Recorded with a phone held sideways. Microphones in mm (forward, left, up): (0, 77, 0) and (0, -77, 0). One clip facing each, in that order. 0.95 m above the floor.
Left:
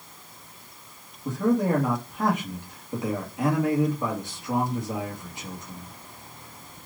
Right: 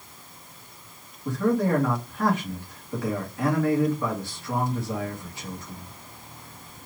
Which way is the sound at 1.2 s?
20° left (ahead or behind).